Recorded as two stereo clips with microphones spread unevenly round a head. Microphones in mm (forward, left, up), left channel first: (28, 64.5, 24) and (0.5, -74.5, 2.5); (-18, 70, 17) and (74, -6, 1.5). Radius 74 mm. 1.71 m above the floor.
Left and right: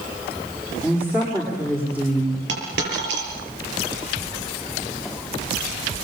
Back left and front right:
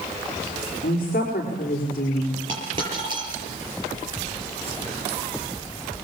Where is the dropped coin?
100° right, 8 m.